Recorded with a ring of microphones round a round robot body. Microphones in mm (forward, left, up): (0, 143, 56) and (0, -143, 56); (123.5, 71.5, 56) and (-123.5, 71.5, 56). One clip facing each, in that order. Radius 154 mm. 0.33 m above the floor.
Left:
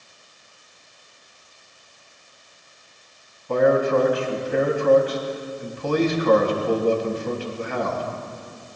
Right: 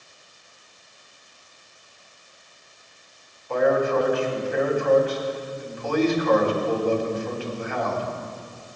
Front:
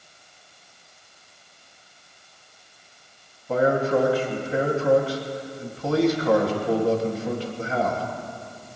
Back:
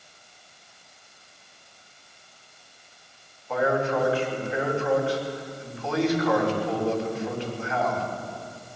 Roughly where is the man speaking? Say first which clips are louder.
Left 3 dB, front 4 dB; ahead left.